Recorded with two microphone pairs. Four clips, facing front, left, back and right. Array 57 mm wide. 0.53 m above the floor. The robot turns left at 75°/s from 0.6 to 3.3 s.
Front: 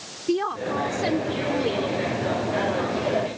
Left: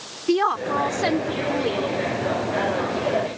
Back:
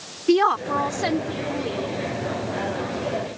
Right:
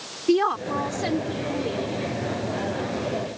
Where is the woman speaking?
150° left; by 1.8 s 60° left.